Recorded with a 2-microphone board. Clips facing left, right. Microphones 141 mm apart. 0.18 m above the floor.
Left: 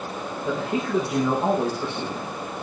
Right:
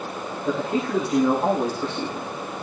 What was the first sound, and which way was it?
A man speaking, 10° left (ahead or behind).